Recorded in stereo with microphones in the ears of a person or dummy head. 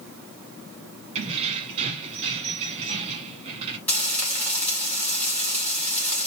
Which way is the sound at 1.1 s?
25° right (ahead or behind).